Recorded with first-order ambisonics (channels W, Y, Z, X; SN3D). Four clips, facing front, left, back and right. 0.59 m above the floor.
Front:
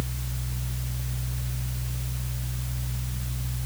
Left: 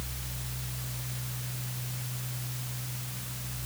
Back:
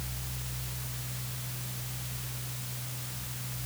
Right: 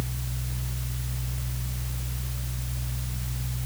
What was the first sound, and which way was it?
Only background noise.